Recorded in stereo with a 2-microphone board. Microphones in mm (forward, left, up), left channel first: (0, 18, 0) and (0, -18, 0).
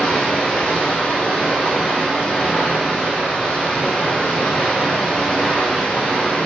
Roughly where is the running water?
Left.